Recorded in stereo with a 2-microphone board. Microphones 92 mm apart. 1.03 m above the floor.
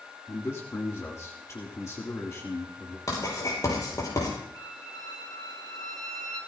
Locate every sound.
0.3 s a man speaking: 35° left (ahead or behind), 1.8 m
3.1 s writing: 40° left (ahead or behind), 7 m
4.5 s a violin: 45° left (ahead or behind), 2 m